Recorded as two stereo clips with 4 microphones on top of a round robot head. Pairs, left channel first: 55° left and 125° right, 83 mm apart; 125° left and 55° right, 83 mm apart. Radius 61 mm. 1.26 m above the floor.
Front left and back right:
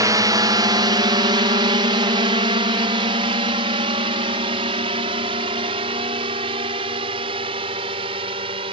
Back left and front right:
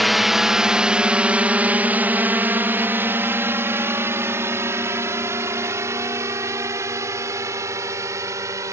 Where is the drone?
140° right; by 8.7 s 110° right.